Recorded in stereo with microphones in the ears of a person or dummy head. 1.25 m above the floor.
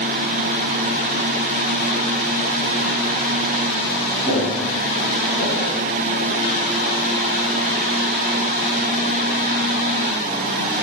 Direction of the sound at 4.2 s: 40° right (ahead or behind).